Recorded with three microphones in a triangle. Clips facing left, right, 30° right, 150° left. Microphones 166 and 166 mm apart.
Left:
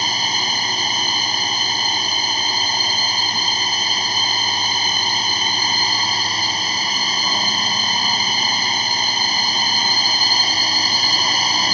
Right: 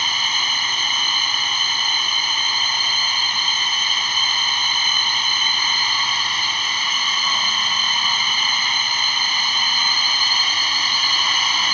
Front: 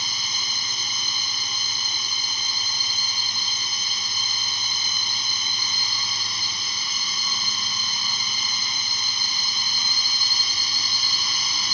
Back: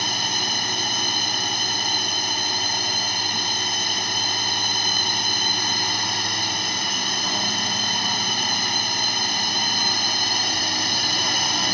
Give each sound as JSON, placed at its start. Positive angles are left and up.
{"t": 0.0, "sound": "a drone", "azimuth_deg": 140}